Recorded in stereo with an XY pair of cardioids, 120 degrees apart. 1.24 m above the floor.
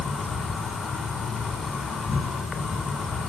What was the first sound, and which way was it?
An insect, 30° left.